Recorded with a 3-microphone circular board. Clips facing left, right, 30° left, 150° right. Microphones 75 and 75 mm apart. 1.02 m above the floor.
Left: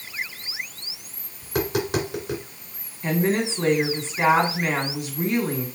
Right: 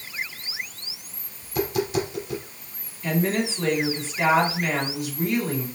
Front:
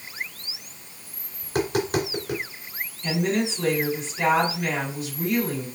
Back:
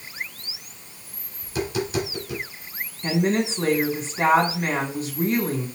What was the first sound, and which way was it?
Tapping, 65° left.